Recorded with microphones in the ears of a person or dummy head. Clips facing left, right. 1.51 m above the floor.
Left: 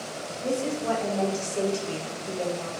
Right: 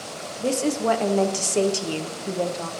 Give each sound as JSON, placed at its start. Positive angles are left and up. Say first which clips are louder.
{"t": 0.4, "sound": "a woman speaking", "louder": "right 5 dB", "side_deg": -75, "distance_m": 0.9}